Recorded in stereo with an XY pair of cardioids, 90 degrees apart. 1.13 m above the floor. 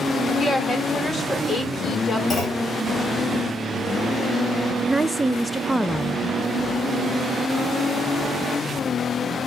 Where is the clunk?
50° left, 5.5 m.